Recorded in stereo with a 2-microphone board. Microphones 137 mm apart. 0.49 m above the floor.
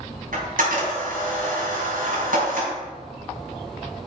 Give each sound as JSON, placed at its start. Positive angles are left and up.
{"t": 0.3, "sound": "a camera shutter", "side_deg": -75, "distance_m": 4.0}